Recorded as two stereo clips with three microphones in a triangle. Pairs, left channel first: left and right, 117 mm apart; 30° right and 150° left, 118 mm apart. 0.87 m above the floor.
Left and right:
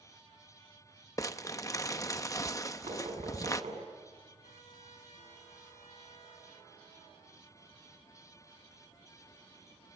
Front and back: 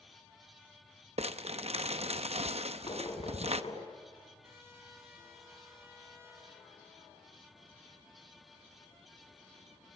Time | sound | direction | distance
1.2 | crumpling | 150° left | 0.7 m
2.9 | knocking | 70° right | 6.5 m
4.4 | a trumpet | 80° left | 8.5 m